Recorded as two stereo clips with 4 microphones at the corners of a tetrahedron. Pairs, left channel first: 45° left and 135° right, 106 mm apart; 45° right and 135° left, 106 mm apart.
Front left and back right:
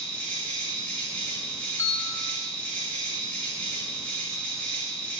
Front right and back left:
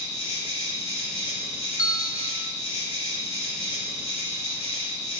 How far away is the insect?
About 3 m.